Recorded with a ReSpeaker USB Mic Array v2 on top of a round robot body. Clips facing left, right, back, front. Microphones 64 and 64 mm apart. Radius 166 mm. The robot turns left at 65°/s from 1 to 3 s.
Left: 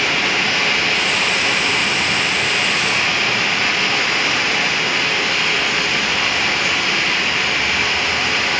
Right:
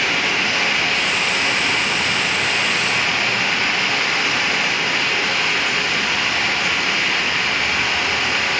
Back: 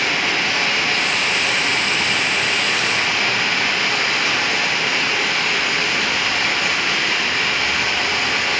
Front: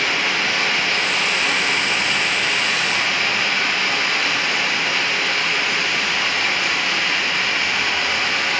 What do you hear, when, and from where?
0.0 s running water: 10° right, 1.7 m; by 8.6 s 140° right, 1.7 m